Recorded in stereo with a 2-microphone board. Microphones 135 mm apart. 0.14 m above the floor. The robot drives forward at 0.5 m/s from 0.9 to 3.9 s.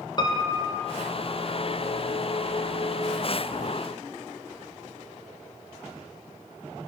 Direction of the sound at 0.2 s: 30° left (ahead or behind).